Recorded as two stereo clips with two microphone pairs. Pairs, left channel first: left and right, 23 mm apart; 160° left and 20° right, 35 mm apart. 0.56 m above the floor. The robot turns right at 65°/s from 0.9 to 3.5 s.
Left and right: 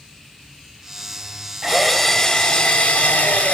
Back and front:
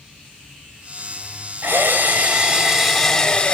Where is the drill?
20° right, 2.5 m; by 3.5 s 100° left, 2.5 m.